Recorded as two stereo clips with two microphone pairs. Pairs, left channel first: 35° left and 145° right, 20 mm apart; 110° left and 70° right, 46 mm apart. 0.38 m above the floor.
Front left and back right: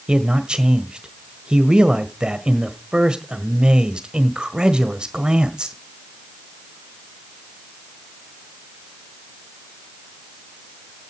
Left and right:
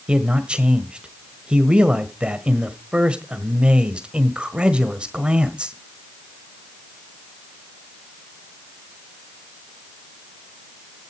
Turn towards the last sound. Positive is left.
turn(degrees=-125)